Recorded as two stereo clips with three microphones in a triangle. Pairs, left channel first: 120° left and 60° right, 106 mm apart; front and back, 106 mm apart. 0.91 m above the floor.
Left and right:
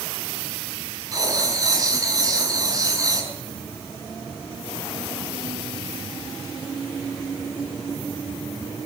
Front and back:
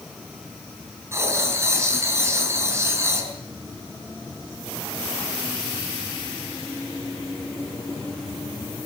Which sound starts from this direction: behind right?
Writing, at 1.1 s.